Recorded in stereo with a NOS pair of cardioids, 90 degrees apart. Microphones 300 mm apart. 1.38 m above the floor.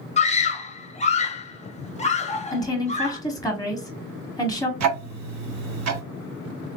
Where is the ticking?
70° right, 1.0 m.